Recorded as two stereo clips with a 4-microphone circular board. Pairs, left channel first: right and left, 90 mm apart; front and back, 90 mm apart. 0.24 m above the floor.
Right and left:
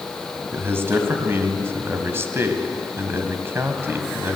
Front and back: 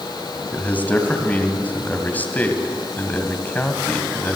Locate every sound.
0.5 s a man speaking: 55° left, 1.8 m